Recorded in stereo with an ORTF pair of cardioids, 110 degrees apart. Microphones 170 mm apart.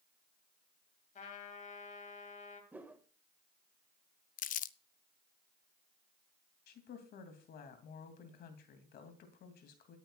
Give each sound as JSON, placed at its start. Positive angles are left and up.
{"t": 1.1, "sound": "a trumpet", "azimuth_deg": 45, "distance_m": 2.5}
{"t": 2.7, "sound": "a whoosh", "azimuth_deg": -10, "distance_m": 1.7}
{"t": 4.4, "sound": "crumpling", "azimuth_deg": 50, "distance_m": 0.6}
{"t": 6.7, "sound": "a woman speaking", "azimuth_deg": 65, "distance_m": 2.5}